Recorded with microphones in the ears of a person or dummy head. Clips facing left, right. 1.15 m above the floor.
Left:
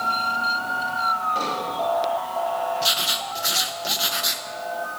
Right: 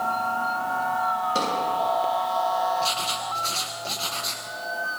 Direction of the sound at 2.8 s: 10° left (ahead or behind).